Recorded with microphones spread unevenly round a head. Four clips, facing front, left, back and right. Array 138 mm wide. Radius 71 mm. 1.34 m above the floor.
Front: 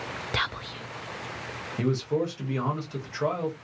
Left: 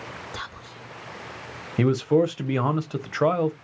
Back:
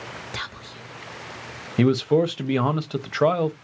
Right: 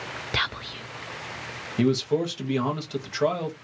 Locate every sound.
0.3 s whispering: 85° right, 0.6 m
1.8 s a man speaking: 155° left, 0.6 m